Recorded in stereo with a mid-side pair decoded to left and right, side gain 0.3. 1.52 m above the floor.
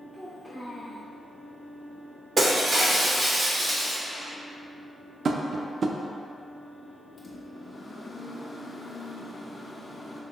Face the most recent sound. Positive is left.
turn(degrees=45)